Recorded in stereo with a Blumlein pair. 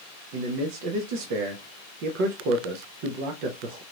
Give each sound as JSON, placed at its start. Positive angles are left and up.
{"t": 0.3, "sound": "a man speaking", "azimuth_deg": -45, "distance_m": 0.7}